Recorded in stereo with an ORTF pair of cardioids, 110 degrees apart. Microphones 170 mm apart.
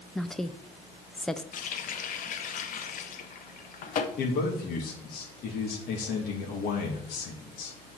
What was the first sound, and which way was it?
A woman speaking, 5° left.